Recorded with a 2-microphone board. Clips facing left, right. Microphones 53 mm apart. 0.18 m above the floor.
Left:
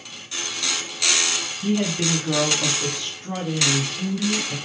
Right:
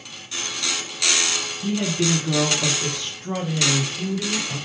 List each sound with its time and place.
1.6 s a woman speaking: 30° left (ahead or behind), 1.1 m; by 4.6 s 20° right (ahead or behind), 1.5 m